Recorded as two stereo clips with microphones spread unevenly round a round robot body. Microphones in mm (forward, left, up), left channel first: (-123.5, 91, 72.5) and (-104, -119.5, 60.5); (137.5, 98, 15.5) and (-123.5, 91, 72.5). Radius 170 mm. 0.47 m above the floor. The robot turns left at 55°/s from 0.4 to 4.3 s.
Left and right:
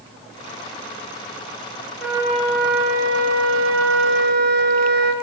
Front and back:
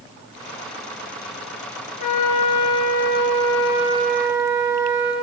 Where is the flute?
5° left, 6 m; by 5.1 s 120° right, 6 m.